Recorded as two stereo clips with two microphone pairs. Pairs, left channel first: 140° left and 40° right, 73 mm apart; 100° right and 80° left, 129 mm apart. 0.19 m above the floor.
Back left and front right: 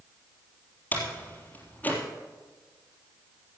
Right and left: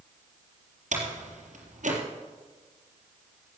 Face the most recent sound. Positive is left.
turn(degrees=75)